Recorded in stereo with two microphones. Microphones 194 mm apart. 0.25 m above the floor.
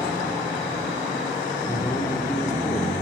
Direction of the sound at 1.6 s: 15° left (ahead or behind).